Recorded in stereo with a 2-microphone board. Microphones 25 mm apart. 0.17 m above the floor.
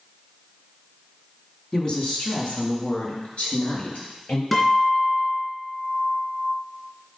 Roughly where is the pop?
I don't hear a pop.